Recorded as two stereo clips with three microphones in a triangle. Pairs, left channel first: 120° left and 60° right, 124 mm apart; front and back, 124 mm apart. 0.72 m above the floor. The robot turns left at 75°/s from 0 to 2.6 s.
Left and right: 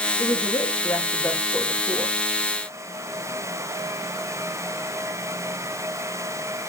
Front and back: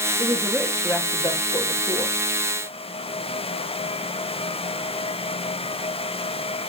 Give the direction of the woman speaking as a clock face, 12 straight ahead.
7 o'clock.